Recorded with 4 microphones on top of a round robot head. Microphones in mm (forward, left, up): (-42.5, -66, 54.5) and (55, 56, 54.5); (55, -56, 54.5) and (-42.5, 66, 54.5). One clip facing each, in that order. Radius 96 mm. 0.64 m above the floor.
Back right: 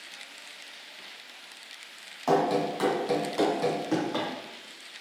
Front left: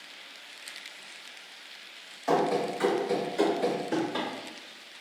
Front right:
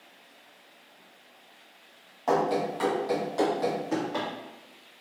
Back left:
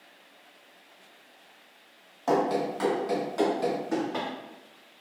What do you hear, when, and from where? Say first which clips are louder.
2.3 s running footsteps: back right 1 dB, even; 150° right, 1.4 m; by 4.3 s 135° right, 2.5 m